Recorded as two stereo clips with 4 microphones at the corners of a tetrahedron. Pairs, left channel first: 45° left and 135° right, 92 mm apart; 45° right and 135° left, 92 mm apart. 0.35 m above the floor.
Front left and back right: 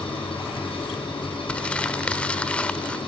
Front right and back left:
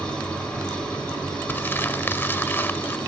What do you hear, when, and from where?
0.0 s an engine running: 35° left, 7 m
1.5 s crumpling: 20° right, 0.6 m